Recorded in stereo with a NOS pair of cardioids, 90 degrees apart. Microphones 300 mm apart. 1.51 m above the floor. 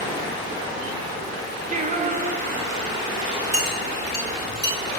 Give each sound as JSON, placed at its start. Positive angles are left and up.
{"t": 1.7, "sound": "singing", "azimuth_deg": -25, "distance_m": 0.7}
{"t": 3.5, "sound": "a clink", "azimuth_deg": -10, "distance_m": 2.5}